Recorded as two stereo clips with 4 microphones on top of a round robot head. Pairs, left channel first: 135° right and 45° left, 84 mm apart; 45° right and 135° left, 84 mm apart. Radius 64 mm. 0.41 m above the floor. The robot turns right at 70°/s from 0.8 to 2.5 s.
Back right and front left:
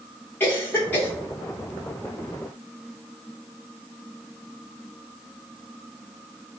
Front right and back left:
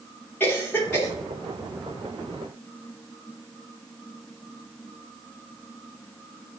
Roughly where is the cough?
Right.